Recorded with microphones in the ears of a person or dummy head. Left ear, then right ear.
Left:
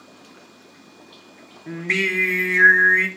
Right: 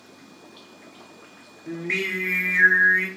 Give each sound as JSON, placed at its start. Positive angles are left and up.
{"t": 1.7, "sound": "singing", "side_deg": 35, "distance_m": 0.6}